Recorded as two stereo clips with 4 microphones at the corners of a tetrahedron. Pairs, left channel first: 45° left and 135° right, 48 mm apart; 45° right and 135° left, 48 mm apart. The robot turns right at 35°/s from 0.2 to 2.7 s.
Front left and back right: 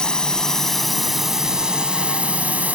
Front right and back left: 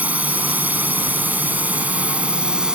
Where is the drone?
105° left; by 2.8 s 165° right.